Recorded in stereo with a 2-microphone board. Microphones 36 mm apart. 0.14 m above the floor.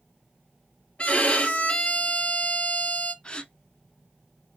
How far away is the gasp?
About 0.5 m.